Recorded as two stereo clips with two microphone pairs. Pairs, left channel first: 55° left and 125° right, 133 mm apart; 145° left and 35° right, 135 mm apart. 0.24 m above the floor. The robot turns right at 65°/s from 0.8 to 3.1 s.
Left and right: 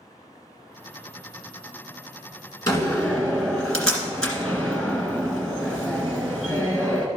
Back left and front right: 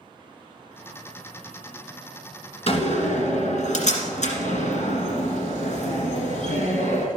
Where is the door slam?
110° left, 1.8 m; by 7.1 s 140° left, 1.8 m.